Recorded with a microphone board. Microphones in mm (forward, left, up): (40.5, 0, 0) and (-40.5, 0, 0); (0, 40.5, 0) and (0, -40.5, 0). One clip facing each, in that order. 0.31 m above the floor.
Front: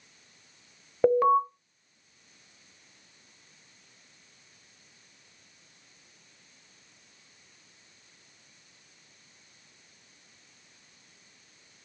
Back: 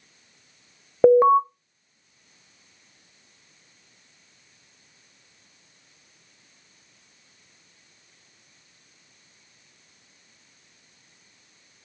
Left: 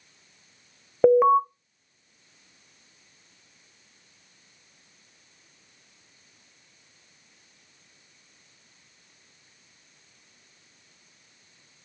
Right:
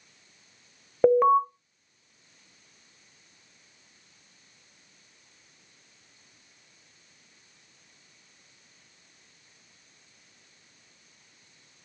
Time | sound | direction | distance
1.0 | an alarm | 170° left | 0.7 m